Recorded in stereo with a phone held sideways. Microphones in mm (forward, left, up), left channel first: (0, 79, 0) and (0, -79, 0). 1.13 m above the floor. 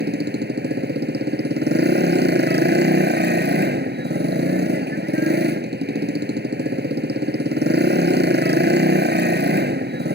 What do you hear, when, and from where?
0.0 s a motorcycle: 85° right